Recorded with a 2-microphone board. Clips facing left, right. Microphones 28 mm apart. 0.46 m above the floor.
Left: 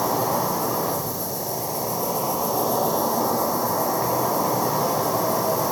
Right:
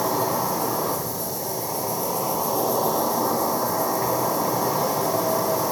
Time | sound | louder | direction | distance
0.0 | an insect | left 1 dB | 5° left (ahead or behind) | 1.7 m